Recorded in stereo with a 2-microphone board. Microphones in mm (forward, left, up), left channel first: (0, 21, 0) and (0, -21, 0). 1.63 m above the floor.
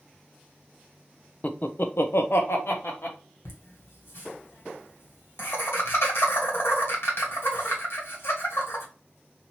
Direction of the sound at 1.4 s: 35° left (ahead or behind).